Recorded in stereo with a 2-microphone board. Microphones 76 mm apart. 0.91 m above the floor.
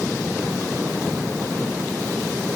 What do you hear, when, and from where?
Only background noise.